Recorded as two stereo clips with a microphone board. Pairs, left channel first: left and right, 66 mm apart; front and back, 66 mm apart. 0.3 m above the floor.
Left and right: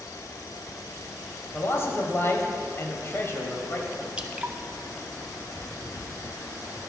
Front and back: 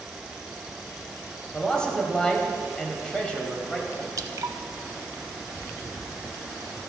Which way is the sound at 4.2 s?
160° right.